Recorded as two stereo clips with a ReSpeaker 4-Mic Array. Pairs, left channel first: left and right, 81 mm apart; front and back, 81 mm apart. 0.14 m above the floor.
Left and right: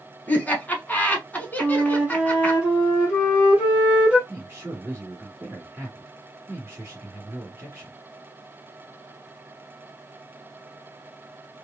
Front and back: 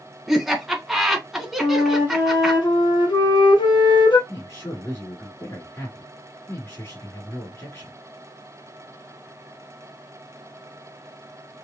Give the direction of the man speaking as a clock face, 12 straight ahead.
2 o'clock.